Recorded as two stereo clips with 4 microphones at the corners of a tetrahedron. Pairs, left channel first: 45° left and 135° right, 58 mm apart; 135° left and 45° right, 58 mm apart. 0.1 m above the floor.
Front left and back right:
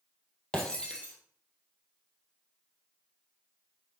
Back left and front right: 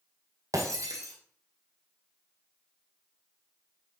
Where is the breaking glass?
30° right, 2 m.